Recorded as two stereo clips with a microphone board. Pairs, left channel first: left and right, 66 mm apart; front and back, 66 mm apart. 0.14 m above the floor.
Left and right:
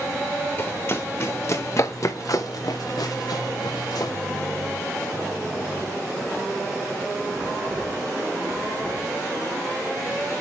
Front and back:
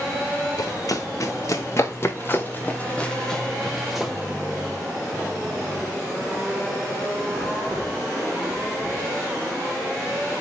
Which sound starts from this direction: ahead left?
Running footsteps, at 0.6 s.